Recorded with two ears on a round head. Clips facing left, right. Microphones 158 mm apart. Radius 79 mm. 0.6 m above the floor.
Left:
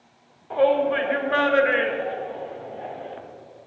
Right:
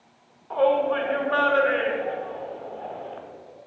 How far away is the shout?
About 1.6 m.